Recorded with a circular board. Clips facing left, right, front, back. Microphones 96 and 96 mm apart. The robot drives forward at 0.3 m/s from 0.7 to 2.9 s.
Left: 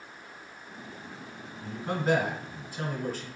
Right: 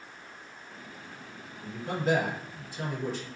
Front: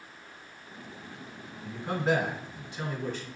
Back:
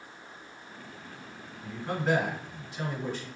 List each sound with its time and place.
1.6 s a man speaking: 85° left, 1.6 m; by 3.3 s 105° left, 1.6 m